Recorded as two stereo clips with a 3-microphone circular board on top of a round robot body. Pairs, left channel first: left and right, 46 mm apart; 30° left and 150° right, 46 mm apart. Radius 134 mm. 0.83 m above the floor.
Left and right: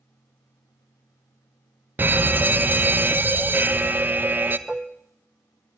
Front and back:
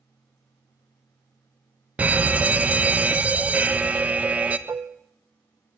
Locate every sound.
2.0 s a fire alarm: 105° right, 1.9 m
4.7 s dishes clattering: 165° right, 0.6 m